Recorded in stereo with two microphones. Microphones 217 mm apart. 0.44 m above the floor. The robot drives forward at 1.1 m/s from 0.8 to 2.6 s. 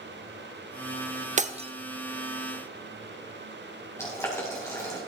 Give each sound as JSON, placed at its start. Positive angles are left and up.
{"t": 1.4, "sound": "breaking glass", "side_deg": -35, "distance_m": 0.6}
{"t": 4.0, "sound": "boiling", "side_deg": 10, "distance_m": 3.5}